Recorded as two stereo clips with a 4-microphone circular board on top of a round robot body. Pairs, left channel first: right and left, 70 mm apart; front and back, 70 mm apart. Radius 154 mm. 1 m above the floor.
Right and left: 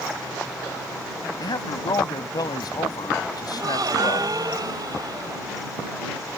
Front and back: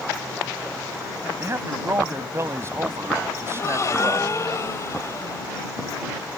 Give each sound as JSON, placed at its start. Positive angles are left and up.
{"t": 1.4, "sound": "a man speaking", "azimuth_deg": -125}
{"t": 3.5, "sound": "a gasp", "azimuth_deg": 50}